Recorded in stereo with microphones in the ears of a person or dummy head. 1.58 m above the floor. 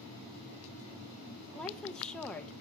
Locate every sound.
1.6 s a woman speaking: centre (ahead or behind), 1.0 m